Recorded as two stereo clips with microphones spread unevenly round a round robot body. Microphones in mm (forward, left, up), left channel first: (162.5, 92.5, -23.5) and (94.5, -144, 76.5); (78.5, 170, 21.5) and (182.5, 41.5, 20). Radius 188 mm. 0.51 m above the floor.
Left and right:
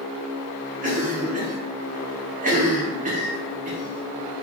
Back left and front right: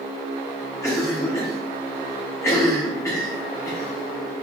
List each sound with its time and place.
0.8 s a cough: straight behind, 0.6 m